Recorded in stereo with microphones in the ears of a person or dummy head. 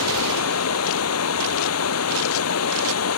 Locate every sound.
0.0 s running water: 85° left